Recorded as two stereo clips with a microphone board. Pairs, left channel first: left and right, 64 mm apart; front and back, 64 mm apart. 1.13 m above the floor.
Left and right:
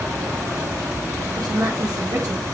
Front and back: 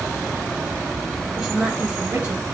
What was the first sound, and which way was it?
A woman speaking, 90° right.